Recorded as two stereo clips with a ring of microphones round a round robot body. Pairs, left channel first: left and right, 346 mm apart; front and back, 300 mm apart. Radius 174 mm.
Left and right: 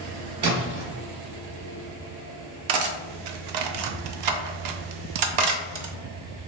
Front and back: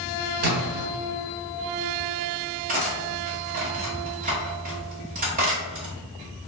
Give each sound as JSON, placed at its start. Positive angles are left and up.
{"t": 0.4, "sound": "a splash", "azimuth_deg": -150, "distance_m": 1.4}
{"t": 2.7, "sound": "cutlery clinking", "azimuth_deg": -110, "distance_m": 0.6}